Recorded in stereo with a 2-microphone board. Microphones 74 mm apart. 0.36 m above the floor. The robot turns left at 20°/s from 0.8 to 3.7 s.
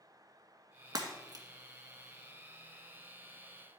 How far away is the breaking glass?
About 1.5 m.